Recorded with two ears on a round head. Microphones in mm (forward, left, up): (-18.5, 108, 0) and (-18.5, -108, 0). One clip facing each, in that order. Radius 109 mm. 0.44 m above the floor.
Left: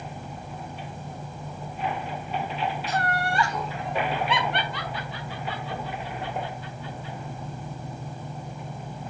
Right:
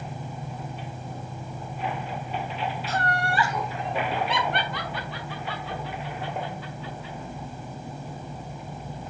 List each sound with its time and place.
2.9 s laughter: 15° left (ahead or behind), 1.5 m; by 7.2 s 70° right (ahead or behind), 4 m